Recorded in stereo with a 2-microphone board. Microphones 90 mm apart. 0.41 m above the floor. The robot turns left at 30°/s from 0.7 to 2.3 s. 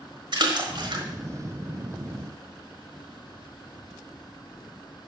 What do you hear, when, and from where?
0.3 s a splash: 60° right (ahead or behind), 1.3 m; by 1.1 s 65° right (ahead or behind), 1.3 m